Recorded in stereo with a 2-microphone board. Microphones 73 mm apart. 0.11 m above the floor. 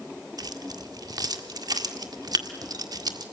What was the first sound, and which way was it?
Keys jangling, 60° right (ahead or behind).